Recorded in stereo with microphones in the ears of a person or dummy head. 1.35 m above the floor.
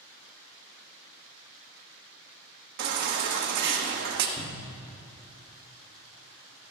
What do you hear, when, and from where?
2.8 s a baby crying: 50° right (ahead or behind), 1.1 m
4.4 s a cupboard door: 30° left (ahead or behind), 2 m